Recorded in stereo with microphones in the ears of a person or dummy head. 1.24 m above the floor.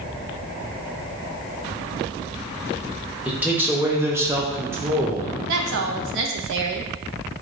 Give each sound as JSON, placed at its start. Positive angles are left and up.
{"t": 3.2, "sound": "a man speaking", "side_deg": -10, "distance_m": 1.1}
{"t": 5.5, "sound": "a woman speaking", "side_deg": -65, "distance_m": 0.7}